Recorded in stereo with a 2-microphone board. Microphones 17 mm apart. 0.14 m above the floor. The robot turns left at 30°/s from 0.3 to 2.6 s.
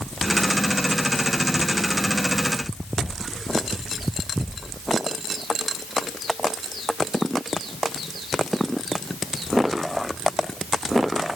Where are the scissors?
No scissors in this recording.